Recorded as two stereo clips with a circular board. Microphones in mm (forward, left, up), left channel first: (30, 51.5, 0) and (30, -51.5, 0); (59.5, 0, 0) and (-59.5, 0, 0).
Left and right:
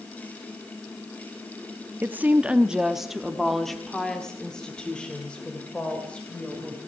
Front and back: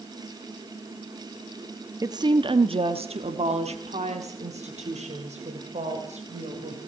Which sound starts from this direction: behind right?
A woman speaking, at 2.0 s.